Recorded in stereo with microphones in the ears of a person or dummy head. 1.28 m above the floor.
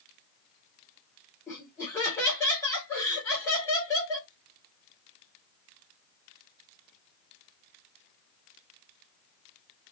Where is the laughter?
15° left (ahead or behind), 1.8 m.